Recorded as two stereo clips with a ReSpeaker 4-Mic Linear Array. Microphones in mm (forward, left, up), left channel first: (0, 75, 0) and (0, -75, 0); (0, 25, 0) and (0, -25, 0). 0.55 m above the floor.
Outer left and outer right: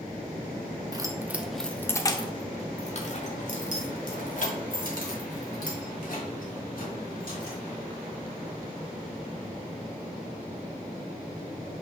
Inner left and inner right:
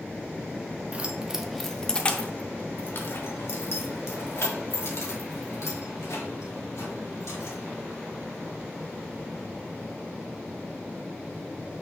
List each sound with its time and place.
0.9 s keys jangling: 25° right (ahead or behind), 0.7 m; by 7.6 s 75° left (ahead or behind), 3.5 m